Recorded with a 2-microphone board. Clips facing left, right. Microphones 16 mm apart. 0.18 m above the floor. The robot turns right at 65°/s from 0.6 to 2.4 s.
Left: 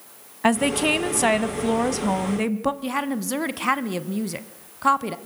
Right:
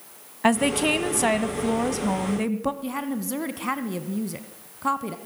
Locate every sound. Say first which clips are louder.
0.4 s a woman speaking: left 1 dB; centre (ahead or behind), 1.0 m; by 2.7 s 15° left (ahead or behind), 1.0 m
2.8 s a woman speaking: left 3 dB; 30° left (ahead or behind), 1.2 m